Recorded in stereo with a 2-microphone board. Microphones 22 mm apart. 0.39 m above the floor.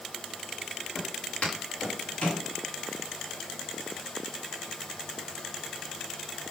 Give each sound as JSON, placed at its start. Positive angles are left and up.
{"t": 0.9, "sound": "footsteps", "side_deg": 80, "distance_m": 9.0}